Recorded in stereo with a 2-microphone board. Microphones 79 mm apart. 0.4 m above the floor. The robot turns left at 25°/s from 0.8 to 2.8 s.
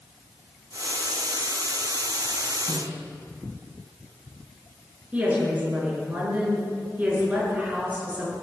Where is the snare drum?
60° right (ahead or behind), 3.5 m; by 3.0 s 55° right (ahead or behind), 3.5 m.